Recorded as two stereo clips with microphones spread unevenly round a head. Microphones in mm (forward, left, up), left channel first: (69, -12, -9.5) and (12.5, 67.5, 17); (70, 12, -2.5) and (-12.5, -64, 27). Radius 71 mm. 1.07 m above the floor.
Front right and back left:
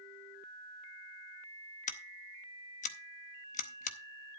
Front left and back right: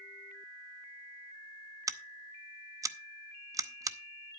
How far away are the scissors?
About 0.7 m.